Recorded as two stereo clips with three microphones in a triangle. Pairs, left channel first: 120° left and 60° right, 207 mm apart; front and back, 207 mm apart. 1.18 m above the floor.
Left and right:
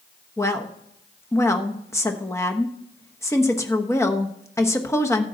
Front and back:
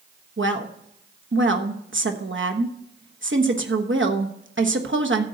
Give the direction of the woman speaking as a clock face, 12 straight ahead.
5 o'clock.